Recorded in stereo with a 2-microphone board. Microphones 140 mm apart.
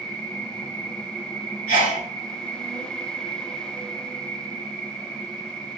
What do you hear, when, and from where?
0.0 s an insect: 25° left (ahead or behind), 1.1 m
1.7 s a sneeze: 65° left (ahead or behind), 1.5 m